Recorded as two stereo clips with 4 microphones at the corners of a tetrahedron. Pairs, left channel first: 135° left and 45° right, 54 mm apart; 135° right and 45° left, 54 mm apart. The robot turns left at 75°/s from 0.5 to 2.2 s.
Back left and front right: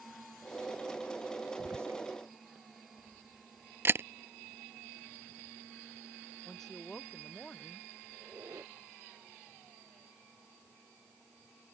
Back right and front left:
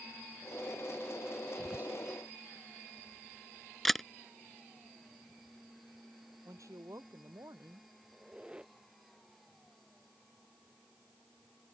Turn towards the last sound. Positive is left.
turn(degrees=-25)